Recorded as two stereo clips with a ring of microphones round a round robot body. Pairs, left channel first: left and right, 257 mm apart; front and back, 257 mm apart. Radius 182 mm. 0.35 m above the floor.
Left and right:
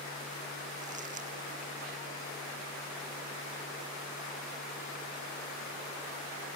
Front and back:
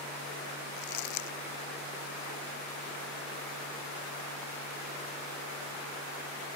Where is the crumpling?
20° right.